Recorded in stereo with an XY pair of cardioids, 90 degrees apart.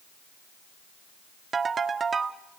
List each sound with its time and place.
1.5 s a ringtone: 45° right, 1.4 m